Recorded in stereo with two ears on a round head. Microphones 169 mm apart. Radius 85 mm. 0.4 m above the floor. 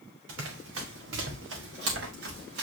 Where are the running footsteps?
70° right (ahead or behind), 4 m; by 2.6 s 55° right (ahead or behind), 4.5 m.